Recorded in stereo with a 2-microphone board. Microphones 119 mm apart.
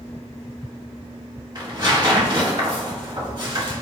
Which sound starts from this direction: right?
Tearing paper, at 1.6 s.